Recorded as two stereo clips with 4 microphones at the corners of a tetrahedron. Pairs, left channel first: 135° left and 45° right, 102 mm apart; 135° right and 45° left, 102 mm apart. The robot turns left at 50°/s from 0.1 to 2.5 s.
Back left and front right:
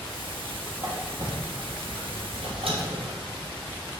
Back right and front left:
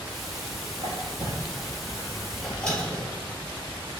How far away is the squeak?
About 3 m.